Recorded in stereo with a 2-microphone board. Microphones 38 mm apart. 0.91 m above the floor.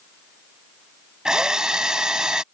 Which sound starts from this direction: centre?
A drill, at 1.2 s.